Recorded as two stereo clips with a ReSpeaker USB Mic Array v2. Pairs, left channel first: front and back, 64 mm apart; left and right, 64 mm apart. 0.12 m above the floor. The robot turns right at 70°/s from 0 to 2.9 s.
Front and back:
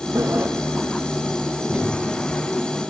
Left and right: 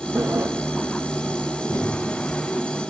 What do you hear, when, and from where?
0.1 s a sliding door: 140° right, 1.2 m; by 0.5 s 115° right, 1.2 m
1.7 s knocking: 85° left, 6.5 m; by 2.1 s 115° left, 6.5 m